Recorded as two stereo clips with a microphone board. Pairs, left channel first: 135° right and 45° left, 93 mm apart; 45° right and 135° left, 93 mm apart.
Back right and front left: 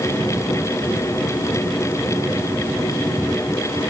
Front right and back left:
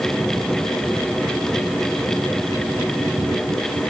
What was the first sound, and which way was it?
Only background noise.